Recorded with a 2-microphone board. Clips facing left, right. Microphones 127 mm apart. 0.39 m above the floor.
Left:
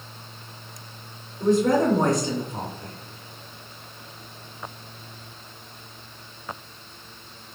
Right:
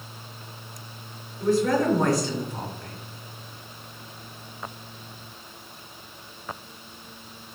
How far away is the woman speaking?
About 0.8 m.